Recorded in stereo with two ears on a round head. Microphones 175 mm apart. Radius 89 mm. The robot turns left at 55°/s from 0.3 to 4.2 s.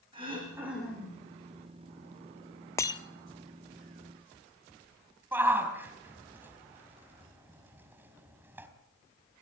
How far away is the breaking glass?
About 1.0 m.